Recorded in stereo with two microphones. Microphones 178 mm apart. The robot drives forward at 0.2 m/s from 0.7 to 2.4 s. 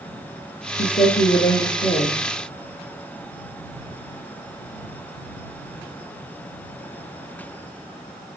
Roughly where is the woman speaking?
Left.